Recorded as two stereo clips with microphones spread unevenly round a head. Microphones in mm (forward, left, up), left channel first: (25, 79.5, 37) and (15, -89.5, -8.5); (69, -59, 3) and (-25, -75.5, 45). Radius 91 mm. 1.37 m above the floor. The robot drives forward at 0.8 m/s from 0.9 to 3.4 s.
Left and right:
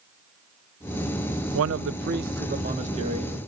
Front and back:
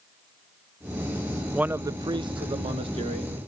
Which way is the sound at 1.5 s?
95° right.